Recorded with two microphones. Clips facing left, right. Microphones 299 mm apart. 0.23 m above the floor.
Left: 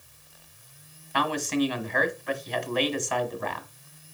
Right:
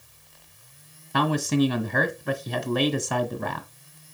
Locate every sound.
1.1 s a man speaking: 45° right (ahead or behind), 1.4 m